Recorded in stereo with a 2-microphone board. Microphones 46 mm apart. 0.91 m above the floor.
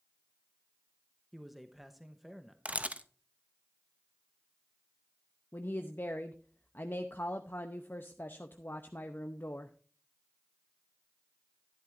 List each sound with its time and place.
1.3 s a man speaking: centre (ahead or behind), 0.8 m
2.6 s a camera shutter: 30° right (ahead or behind), 0.5 m
5.5 s a woman speaking: 50° left (ahead or behind), 0.6 m